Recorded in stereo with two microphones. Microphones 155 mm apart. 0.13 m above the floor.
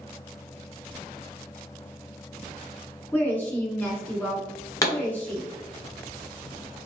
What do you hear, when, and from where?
3.1 s a woman speaking: 10° left (ahead or behind), 1.4 m
4.8 s a pop: 20° left (ahead or behind), 1.5 m